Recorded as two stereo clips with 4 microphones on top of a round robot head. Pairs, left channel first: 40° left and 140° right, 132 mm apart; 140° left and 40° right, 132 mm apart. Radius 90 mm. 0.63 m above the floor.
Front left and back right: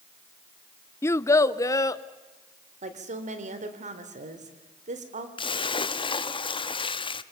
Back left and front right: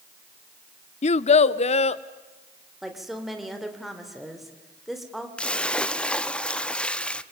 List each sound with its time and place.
1.0 s a child speaking: 110° left, 0.5 m; by 2.0 s 105° left, 1.2 m
2.8 s a woman speaking: 125° right, 3 m
5.4 s a splash: 65° left, 0.9 m